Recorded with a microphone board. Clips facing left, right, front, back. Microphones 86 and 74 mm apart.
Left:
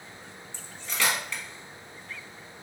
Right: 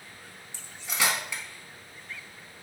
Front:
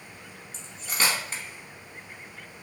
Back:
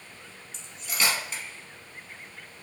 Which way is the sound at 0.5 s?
20° right.